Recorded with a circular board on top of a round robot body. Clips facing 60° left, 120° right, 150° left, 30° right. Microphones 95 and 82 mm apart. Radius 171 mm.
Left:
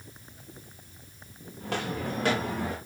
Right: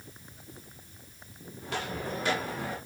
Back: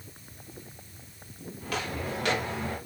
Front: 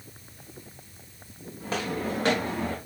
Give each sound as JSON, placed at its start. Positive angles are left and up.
{"t": 1.6, "sound": "footsteps", "azimuth_deg": 35, "distance_m": 5.0}